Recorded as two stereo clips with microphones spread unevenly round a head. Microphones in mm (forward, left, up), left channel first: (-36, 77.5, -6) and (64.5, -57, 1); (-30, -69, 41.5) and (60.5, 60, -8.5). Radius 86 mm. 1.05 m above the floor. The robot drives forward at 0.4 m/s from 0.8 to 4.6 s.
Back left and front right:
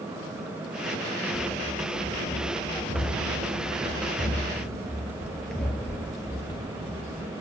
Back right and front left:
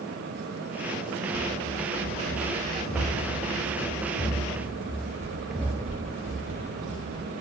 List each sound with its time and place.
1.3 s running footsteps: 105° right, 5.5 m; by 7.3 s 65° left, 2.5 m